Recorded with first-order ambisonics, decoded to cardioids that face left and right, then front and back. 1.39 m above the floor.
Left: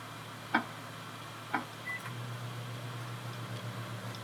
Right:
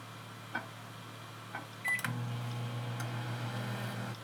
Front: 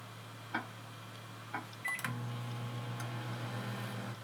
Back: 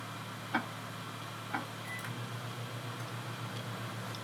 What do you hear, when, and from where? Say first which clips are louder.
0.5 s ticking: left 9 dB, back 4 dB; 110° left, 0.7 m
1.8 s a microwave: right 6 dB, front 3 dB; 65° right, 0.9 m